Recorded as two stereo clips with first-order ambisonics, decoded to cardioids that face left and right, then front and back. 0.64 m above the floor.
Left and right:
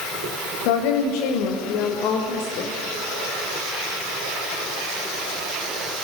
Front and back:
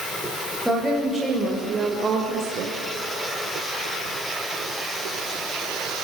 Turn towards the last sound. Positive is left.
turn(degrees=140)